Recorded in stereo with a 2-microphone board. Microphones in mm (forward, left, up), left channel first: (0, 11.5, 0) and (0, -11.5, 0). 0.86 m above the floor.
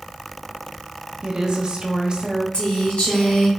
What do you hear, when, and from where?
1.2 s a woman speaking: 35° right (ahead or behind), 0.6 m
2.5 s a woman speaking: 55° left (ahead or behind), 1.6 m